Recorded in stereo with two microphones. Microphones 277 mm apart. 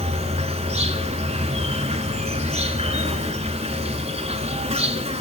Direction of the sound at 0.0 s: 25° right (ahead or behind).